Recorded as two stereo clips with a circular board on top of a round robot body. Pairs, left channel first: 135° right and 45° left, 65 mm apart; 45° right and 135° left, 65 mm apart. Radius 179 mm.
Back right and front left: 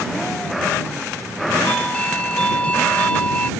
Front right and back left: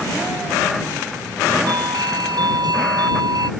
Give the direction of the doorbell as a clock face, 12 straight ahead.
7 o'clock.